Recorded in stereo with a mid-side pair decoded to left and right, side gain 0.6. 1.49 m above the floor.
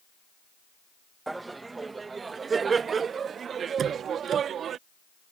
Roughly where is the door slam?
Ahead right.